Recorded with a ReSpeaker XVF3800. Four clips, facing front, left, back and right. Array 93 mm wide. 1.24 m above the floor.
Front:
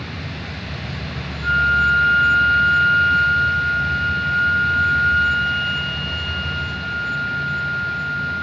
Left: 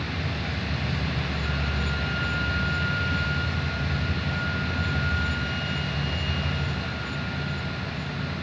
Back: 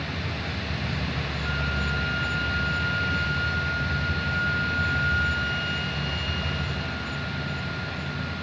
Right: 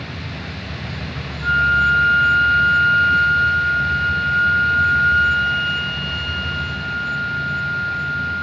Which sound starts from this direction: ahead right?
A flute, at 1.4 s.